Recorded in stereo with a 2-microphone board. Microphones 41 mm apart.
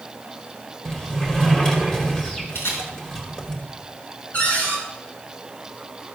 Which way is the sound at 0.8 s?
15° left (ahead or behind).